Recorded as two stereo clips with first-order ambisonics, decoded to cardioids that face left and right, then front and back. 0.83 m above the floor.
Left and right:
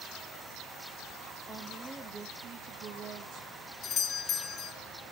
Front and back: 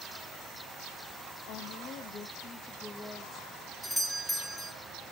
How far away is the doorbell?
About 1.0 m.